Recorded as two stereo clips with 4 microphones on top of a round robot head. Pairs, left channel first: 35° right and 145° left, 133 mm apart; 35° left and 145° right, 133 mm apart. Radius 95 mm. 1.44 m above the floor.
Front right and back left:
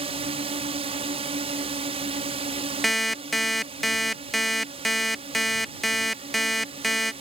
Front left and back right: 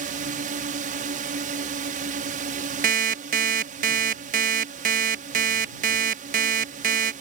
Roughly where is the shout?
No shout in this recording.